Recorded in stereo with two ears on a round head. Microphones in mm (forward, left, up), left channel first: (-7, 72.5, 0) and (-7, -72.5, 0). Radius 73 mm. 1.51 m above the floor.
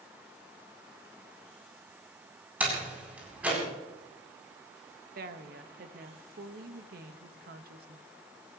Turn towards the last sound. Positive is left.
turn(degrees=-60)  # may be behind; listen again after turning